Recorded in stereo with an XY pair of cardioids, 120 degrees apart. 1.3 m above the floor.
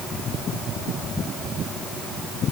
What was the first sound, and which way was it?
Only background noise.